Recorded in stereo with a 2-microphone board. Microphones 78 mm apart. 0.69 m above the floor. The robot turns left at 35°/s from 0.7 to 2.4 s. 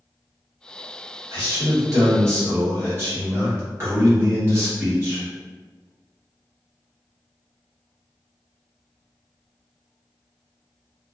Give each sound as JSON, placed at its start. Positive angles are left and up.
{"t": 1.3, "sound": "a man speaking", "azimuth_deg": -95, "distance_m": 1.4}